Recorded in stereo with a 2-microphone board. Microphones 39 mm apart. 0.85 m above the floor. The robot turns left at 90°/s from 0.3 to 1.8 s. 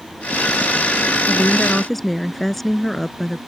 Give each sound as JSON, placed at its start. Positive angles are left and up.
{"t": 1.3, "sound": "a woman speaking", "azimuth_deg": 50}